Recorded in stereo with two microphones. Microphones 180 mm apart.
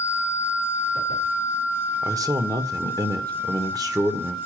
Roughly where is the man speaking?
Centre.